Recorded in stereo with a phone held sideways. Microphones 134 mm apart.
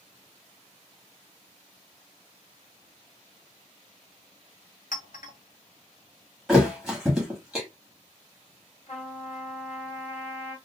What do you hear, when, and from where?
4.9 s a clink: 70° left (ahead or behind), 0.7 m
6.5 s a thud: 5° right (ahead or behind), 1.1 m
8.9 s a trumpet: 55° left (ahead or behind), 1.6 m